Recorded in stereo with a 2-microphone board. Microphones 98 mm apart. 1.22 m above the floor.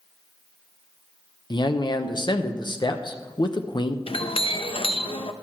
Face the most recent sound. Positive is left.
turn(degrees=70)  # may be behind; listen again after turning